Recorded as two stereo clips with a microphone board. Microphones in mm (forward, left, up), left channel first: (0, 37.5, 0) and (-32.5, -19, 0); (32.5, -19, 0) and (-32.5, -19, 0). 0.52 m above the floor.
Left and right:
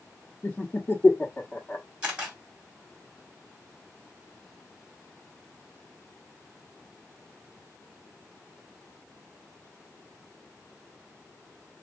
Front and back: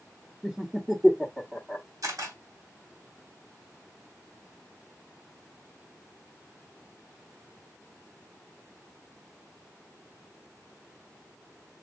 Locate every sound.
0.4 s laughter: 100° left, 1.1 m
2.0 s a camera shutter: 170° left, 2.5 m